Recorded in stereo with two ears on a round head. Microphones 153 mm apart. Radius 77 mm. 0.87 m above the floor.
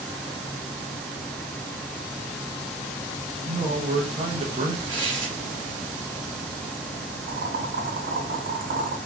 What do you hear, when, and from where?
3.5 s a man speaking: 35° right (ahead or behind), 0.6 m
4.9 s tearing paper: 30° right (ahead or behind), 1.5 m
7.3 s boiling: 55° right (ahead or behind), 2.0 m